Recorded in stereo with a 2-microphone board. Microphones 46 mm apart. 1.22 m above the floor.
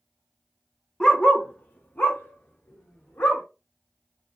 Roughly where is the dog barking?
Centre.